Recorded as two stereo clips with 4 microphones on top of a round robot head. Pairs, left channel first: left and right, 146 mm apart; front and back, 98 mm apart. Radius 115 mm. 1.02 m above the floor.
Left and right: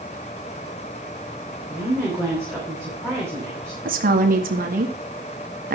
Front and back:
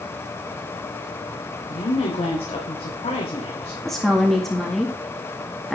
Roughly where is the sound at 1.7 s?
Ahead.